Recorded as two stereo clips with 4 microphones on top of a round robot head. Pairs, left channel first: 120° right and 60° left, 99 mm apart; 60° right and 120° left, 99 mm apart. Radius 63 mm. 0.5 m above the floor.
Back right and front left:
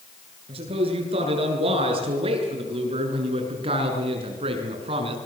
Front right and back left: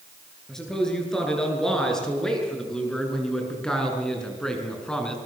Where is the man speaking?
25° left, 9 m.